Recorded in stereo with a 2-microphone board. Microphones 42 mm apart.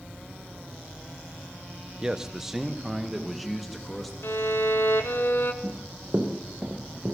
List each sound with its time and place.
2.0 s a man speaking: 15° right (ahead or behind), 1.0 m; by 4.1 s 5° left (ahead or behind), 3 m
4.2 s a violin: 60° left (ahead or behind), 1.5 m
5.6 s running footsteps: 20° right (ahead or behind), 4 m; by 7.2 s 30° right (ahead or behind), 3.5 m